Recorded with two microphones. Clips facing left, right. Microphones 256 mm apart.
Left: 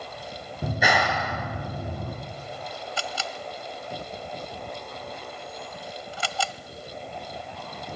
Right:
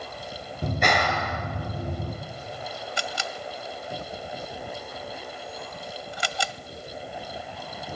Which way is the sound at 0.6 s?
5° left (ahead or behind).